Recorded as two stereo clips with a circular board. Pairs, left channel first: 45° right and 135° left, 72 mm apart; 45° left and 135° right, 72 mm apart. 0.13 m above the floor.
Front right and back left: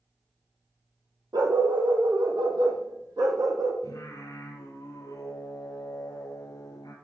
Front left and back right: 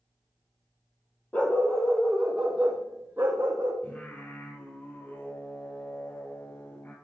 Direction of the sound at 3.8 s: 15° right.